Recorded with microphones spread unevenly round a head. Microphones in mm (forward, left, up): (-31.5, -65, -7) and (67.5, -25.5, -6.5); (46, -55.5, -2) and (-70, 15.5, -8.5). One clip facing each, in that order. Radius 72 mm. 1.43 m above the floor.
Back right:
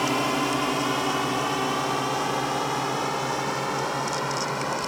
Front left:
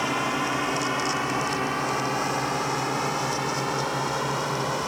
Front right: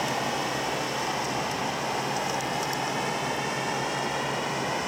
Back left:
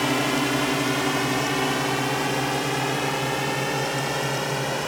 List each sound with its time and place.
0.0 s a drone: 135° left; by 4.9 s 110° left